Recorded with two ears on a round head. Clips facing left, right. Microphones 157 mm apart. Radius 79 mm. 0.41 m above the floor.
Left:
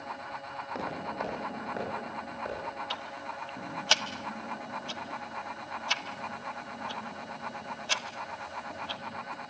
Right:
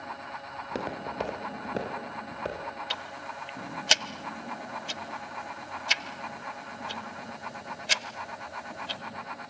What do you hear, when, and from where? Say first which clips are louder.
0.6 s footsteps: right 3 dB; 40° right (ahead or behind), 7.5 m; by 2.7 s 35° right (ahead or behind), 9.5 m
2.9 s ticking: even; 20° right (ahead or behind), 0.7 m